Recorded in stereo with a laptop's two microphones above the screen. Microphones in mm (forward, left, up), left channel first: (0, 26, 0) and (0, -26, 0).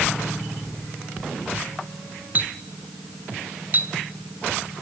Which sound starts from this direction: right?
A clink, at 2.4 s.